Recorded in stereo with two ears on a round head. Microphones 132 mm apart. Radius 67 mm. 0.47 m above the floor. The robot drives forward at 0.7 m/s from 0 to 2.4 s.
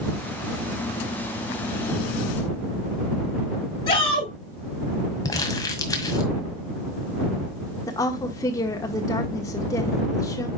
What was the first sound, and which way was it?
A shout, 30° left (ahead or behind).